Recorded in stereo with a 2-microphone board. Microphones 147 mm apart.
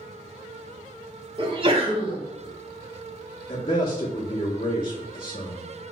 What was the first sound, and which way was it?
A sneeze, 40° right (ahead or behind).